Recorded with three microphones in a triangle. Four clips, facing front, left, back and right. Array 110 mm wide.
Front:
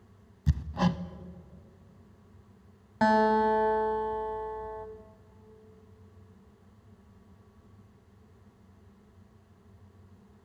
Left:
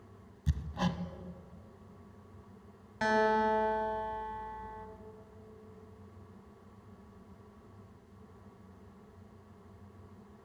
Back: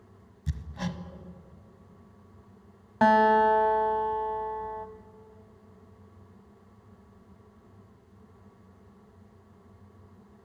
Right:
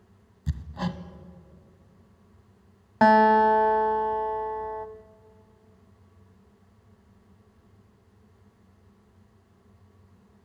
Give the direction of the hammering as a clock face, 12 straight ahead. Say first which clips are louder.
Right 2 dB, front 7 dB; 12 o'clock.